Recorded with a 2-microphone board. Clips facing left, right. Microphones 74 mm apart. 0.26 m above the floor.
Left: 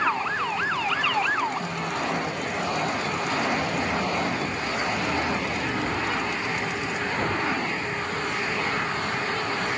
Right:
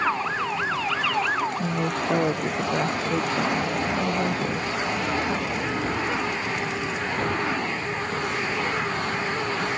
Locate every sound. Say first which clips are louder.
1.6 s a woman speaking: right 3 dB; 60° right (ahead or behind)